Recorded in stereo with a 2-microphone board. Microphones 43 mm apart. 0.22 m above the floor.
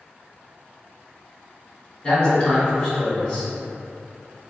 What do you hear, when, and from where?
2.0 s a man speaking: 20° left (ahead or behind), 1.7 m